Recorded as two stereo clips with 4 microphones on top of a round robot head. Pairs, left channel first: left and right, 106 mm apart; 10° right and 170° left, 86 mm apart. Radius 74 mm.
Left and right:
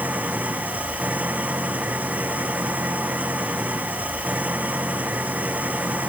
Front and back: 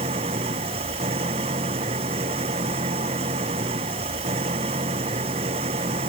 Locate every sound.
0.0 s an engine running: 165° right